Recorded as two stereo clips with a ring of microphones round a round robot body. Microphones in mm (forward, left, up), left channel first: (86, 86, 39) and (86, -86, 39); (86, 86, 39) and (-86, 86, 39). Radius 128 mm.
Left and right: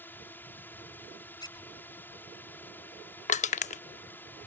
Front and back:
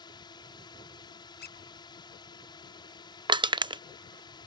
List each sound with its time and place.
0.0 s a drone: 25° left
1.4 s a squeak: 25° left
3.3 s crushing: 120° left